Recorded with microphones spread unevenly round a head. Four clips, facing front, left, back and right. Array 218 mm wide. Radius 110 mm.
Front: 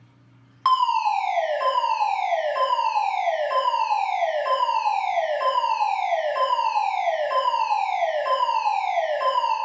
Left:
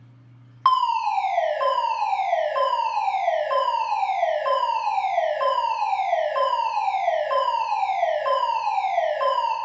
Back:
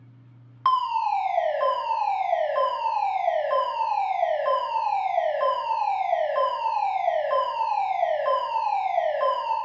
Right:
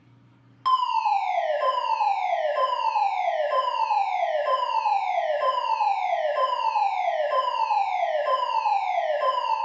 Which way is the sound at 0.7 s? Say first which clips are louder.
Left 2 dB, front 3 dB; 105° left.